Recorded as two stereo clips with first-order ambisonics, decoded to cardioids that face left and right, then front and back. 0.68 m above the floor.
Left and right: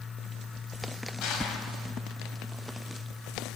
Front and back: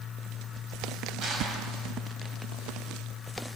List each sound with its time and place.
1.2 s crushing: 125° left, 1.9 m